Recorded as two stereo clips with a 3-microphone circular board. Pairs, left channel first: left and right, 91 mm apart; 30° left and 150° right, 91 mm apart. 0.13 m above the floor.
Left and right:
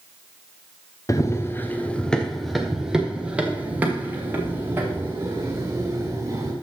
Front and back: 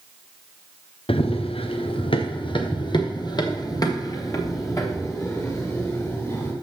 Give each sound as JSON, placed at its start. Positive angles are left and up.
{"t": 1.1, "sound": "running footsteps", "azimuth_deg": 35, "distance_m": 1.1}